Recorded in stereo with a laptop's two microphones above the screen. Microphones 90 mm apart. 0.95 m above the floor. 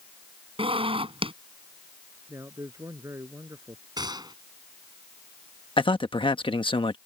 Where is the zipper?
85° right.